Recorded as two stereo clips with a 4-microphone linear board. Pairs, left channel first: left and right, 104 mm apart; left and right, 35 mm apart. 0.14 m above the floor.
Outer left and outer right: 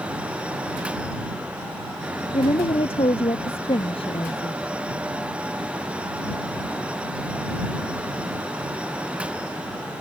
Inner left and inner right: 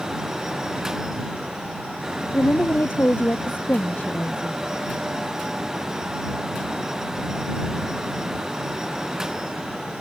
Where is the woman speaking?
65° left (ahead or behind).